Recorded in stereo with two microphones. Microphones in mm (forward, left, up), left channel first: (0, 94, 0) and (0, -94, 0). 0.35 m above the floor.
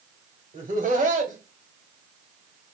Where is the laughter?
45° right (ahead or behind), 1.6 m.